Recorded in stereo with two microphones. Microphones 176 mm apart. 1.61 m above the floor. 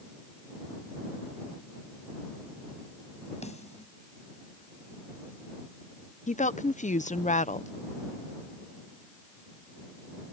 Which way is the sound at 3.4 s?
40° left (ahead or behind).